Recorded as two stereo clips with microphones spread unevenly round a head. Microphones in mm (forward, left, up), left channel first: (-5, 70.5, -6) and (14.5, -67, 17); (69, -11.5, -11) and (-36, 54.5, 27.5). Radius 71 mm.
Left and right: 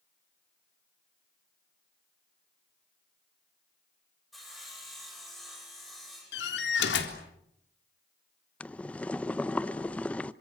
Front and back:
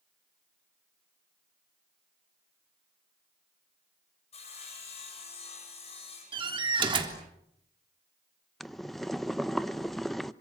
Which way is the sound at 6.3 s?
100° left.